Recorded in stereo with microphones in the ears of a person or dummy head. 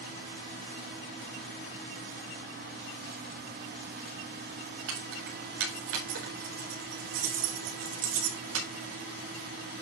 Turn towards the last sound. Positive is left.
turn(degrees=-80)